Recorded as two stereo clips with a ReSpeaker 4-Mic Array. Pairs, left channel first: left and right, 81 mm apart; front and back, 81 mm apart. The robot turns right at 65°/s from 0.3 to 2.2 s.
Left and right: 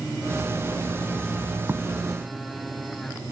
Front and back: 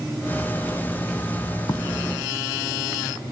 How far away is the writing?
About 0.5 m.